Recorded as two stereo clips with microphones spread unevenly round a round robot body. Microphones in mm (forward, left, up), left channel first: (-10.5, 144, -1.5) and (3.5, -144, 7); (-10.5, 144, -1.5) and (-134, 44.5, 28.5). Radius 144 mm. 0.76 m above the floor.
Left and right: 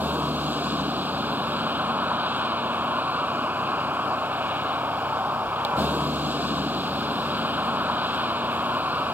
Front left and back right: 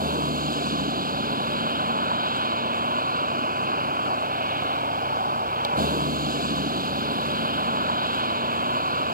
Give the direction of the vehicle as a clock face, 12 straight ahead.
6 o'clock.